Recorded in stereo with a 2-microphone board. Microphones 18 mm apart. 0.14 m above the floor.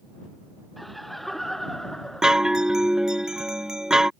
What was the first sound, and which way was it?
Laughter, centre (ahead or behind).